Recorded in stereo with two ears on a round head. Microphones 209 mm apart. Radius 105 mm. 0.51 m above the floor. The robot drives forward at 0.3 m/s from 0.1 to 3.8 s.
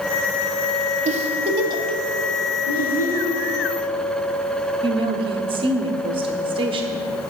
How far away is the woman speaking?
About 0.9 m.